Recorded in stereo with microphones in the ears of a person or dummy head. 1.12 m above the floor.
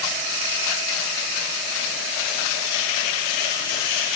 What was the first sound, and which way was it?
Only background noise.